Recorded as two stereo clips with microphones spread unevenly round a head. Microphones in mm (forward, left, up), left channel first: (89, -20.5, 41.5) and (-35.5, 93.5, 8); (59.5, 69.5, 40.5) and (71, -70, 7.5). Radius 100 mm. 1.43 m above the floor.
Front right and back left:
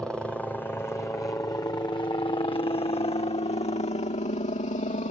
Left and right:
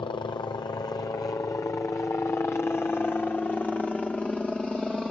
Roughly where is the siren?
I don't hear a siren.